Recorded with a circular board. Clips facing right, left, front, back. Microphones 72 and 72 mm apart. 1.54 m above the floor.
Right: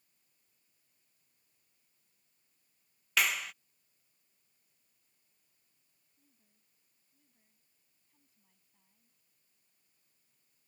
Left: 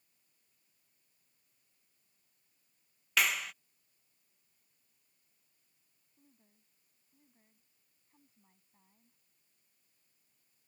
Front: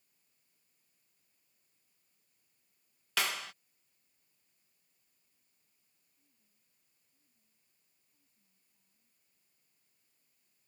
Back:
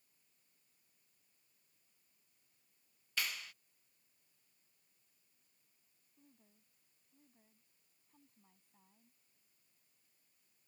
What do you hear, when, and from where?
3.2 s a clap: straight ahead
6.2 s a woman speaking: 150° left